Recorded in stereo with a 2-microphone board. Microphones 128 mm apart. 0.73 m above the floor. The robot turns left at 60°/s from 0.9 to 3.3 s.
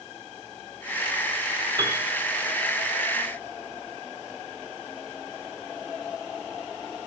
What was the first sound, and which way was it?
A piano, 35° right (ahead or behind).